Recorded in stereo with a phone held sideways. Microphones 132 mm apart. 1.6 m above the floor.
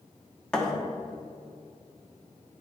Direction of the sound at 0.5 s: 5° left (ahead or behind).